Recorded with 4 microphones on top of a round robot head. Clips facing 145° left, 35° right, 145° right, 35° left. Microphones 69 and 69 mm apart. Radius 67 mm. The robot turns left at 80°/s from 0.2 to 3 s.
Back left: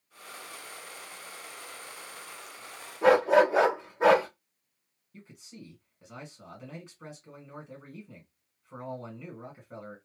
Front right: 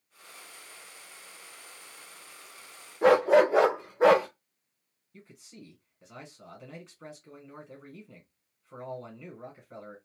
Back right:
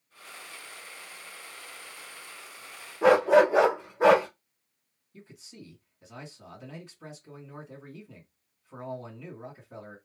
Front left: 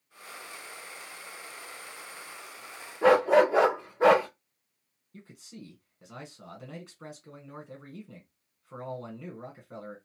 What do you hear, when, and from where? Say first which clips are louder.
3.0 s a dog barking: front right 1 dB, back right 1 dB; 70° right, 1.2 m
5.1 s a man speaking: back left 2 dB, front left 1 dB; 65° left, 1.5 m